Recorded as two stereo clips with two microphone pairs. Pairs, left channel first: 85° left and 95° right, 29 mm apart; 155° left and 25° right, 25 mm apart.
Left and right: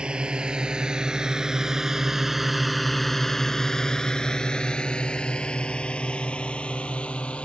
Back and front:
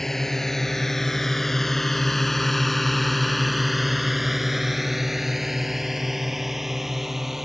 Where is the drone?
135° right; by 7.5 s 50° left.